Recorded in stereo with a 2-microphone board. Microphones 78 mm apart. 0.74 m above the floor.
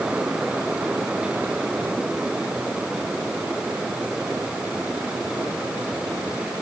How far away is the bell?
I don't hear a bell.